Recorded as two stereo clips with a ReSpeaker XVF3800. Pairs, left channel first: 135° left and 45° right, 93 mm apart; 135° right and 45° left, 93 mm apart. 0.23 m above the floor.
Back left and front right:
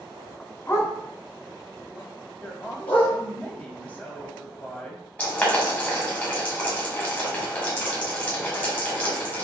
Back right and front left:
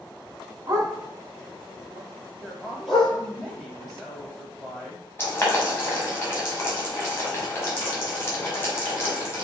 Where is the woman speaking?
140° left, 1.0 m.